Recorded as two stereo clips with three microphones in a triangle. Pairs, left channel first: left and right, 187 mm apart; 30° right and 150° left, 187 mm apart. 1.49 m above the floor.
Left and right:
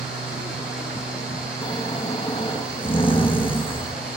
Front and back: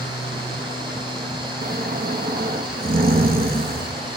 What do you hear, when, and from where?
1.6 s snoring: 140° left, 1.0 m